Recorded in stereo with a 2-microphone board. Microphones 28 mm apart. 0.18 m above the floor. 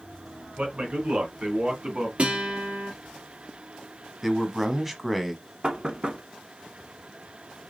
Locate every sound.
0.6 s a man speaking: 45° right (ahead or behind), 2.5 m; by 2.1 s 30° right (ahead or behind), 1.8 m
2.2 s a guitar: 40° right (ahead or behind), 2.5 m
4.2 s a man speaking: 5° right (ahead or behind), 1.1 m
5.6 s knocking: 30° right (ahead or behind), 1.0 m